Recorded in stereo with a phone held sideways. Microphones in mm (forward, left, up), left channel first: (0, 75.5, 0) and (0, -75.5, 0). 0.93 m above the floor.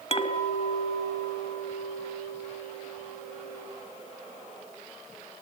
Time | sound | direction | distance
0.1 | a clink | 45° left (ahead or behind) | 3 m